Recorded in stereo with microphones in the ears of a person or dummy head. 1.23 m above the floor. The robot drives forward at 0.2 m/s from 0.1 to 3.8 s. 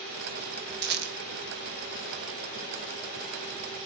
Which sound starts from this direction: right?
A rattle, at 0.8 s.